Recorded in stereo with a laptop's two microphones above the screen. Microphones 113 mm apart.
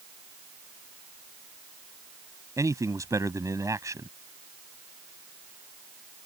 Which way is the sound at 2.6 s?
30° right (ahead or behind).